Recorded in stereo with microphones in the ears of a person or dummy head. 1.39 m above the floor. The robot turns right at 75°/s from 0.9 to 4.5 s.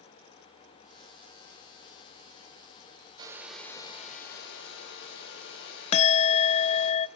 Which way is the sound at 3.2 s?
25° right.